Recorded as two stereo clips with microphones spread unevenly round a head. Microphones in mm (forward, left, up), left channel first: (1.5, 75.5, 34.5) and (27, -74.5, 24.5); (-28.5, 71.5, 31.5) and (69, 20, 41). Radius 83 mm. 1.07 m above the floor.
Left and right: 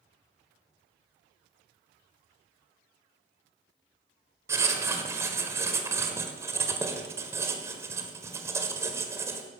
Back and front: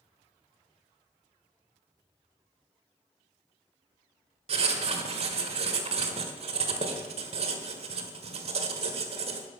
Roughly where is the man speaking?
I don't hear a man speaking.